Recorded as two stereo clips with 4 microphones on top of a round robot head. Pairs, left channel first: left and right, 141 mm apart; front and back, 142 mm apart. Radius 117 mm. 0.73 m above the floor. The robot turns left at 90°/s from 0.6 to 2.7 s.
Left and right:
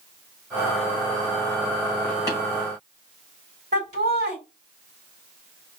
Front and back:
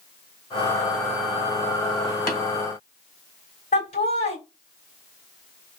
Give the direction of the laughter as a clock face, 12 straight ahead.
2 o'clock.